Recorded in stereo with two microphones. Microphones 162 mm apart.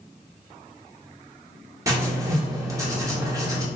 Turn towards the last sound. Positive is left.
turn(degrees=-20)  # may be behind; listen again after turning